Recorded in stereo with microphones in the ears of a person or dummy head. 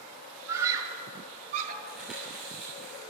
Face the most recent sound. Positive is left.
turn(degrees=-5)  # may be behind; listen again after turning